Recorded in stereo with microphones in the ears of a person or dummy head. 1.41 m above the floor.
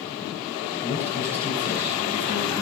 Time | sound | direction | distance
0.8 | a man speaking | 10° right (ahead or behind) | 5.5 m